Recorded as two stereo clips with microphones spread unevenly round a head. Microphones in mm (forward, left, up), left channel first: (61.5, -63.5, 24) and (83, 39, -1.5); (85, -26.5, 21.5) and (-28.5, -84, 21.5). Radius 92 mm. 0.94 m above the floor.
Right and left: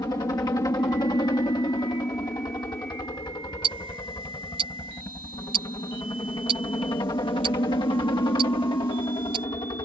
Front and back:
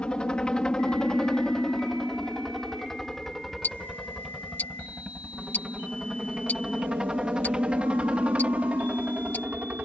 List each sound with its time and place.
0.0 s a helicopter: 55° right; by 9.8 s 80° right
3.6 s ticking: 105° left